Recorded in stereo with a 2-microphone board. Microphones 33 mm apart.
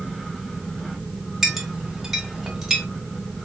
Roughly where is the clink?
Centre.